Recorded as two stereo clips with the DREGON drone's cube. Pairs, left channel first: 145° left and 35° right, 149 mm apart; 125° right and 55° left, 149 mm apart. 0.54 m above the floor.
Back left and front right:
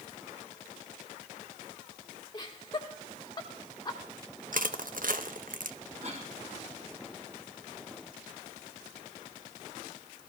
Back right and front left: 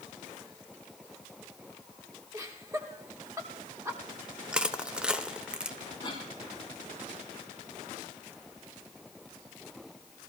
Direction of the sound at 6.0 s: 70° right.